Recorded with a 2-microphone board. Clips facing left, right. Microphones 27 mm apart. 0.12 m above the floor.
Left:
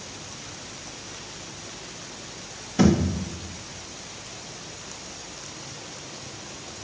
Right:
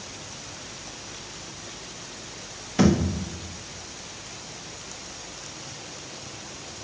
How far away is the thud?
About 2.5 m.